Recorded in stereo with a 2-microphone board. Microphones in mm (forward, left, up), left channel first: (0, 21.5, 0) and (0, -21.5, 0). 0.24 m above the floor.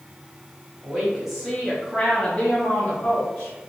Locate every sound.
0.8 s a woman speaking: 15° right (ahead or behind), 1.3 m; by 3.5 s 40° left (ahead or behind), 1.6 m